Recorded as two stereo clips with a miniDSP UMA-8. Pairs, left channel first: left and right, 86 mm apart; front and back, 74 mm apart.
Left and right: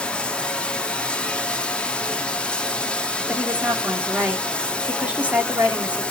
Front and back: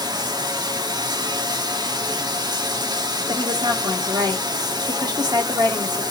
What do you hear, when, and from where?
0.0 s running water: 170° left, 1.0 m
3.3 s a woman speaking: 160° right, 2 m